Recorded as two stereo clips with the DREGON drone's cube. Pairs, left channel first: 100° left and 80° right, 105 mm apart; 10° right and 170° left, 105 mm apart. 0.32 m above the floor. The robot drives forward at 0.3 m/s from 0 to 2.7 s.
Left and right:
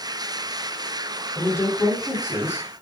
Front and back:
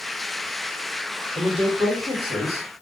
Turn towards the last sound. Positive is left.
turn(degrees=165)